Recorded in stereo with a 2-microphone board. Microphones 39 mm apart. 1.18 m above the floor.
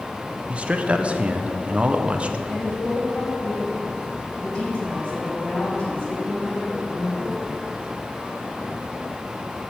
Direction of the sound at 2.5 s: 30° left (ahead or behind).